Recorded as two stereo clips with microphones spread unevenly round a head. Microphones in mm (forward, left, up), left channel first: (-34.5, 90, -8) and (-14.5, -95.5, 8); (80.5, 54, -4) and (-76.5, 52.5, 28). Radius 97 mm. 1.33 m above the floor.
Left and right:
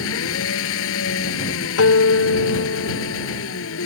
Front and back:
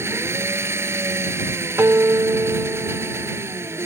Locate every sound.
0.0 s an engine running: 105° left
1.8 s a guitar: 105° left